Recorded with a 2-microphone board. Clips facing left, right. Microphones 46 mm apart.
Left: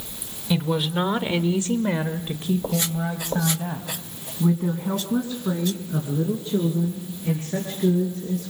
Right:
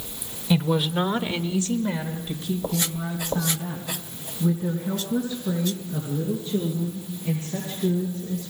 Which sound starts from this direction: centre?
A woman speaking, at 0.5 s.